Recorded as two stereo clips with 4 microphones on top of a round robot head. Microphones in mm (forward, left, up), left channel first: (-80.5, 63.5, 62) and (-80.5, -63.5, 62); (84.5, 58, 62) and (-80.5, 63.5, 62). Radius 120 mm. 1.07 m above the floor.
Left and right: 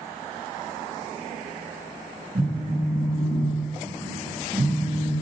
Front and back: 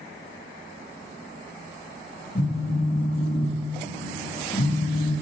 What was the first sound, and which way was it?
A phone buzzing, 45° right.